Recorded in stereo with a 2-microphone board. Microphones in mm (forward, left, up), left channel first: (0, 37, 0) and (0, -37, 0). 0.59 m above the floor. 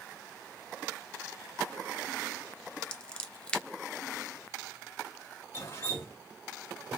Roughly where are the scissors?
Centre.